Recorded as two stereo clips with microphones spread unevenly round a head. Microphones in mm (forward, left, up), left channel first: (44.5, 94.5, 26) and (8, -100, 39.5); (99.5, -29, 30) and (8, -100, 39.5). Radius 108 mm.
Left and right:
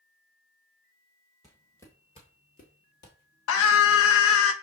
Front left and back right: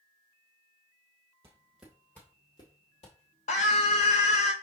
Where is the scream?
75° left, 0.7 m.